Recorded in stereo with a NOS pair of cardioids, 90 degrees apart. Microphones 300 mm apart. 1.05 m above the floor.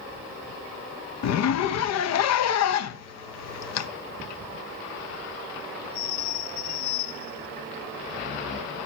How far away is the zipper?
About 0.6 m.